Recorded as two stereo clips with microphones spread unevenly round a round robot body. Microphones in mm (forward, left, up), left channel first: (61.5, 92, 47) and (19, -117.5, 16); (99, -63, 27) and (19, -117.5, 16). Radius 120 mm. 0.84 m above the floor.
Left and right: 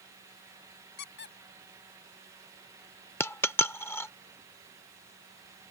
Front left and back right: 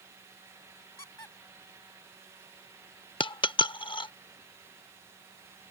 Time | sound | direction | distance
1.0 | a squeak | 85° left | ?
3.2 | a dropped coin | 5° left | ?